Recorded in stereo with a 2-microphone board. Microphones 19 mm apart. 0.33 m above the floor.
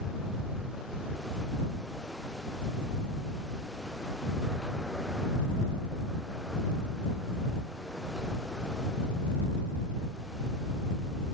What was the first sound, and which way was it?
Only background noise.